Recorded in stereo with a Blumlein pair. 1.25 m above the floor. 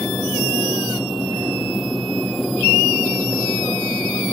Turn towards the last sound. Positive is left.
turn(degrees=5)